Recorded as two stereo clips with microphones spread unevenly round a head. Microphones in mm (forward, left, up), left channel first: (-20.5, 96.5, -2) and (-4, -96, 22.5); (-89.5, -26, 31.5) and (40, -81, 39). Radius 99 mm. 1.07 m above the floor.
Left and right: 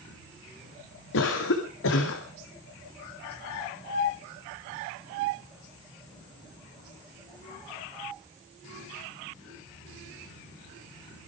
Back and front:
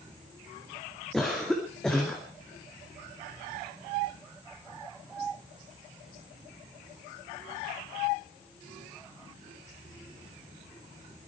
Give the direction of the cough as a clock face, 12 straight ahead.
10 o'clock.